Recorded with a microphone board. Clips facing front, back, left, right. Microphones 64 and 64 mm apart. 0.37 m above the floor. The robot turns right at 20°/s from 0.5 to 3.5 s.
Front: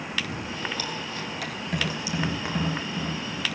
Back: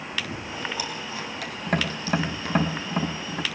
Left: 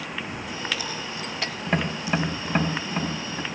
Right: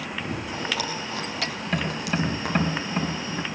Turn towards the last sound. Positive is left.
turn(degrees=-175)